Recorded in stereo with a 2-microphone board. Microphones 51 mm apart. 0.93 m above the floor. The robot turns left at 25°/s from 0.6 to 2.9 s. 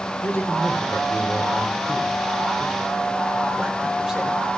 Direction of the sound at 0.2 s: 50° left.